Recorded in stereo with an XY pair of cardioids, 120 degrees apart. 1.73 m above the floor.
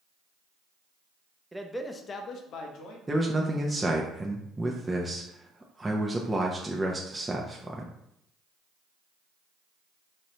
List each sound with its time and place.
1.5 s a man speaking: 10° right, 0.6 m; by 3.0 s 80° left, 1.0 m
3.1 s a man speaking: 15° right, 0.5 m